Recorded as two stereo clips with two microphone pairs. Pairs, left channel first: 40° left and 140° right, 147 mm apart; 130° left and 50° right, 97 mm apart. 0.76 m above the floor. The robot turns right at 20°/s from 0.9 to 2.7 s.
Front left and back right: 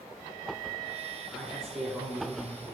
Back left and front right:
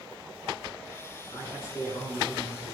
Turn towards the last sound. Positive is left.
turn(degrees=155)